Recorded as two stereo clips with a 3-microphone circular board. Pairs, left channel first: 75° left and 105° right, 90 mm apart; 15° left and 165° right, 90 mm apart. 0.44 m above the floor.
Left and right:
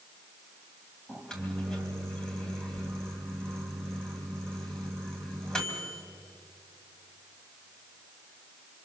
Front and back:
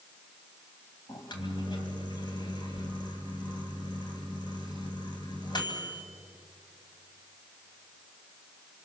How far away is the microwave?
About 2.5 m.